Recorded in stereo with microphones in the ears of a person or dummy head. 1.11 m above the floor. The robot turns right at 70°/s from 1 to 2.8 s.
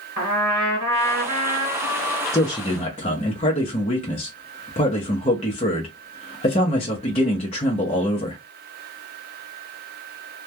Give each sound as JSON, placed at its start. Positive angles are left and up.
{"t": 0.2, "sound": "a trumpet", "azimuth_deg": -70, "distance_m": 1.3}
{"t": 2.3, "sound": "a man speaking", "side_deg": 15, "distance_m": 0.7}